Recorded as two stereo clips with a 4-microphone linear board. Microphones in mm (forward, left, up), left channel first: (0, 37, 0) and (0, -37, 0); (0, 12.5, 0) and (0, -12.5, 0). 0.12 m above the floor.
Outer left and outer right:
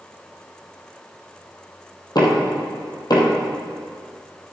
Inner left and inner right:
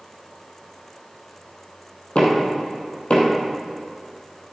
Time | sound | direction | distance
2.1 | knocking | 60° left (ahead or behind) | 2.5 m